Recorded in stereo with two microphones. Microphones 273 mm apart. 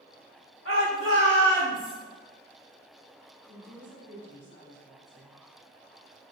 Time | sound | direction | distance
0.7 | a shout | 45° left (ahead or behind) | 1.4 m
3.5 | a woman speaking | 40° right (ahead or behind) | 1.9 m